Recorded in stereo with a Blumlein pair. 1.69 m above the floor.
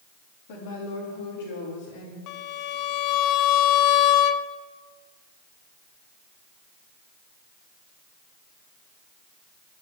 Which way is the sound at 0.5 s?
50° left.